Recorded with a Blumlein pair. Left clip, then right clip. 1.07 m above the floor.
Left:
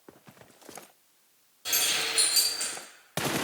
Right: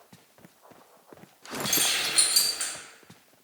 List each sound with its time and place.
1.6 s keys jangling: 10° right, 1.0 m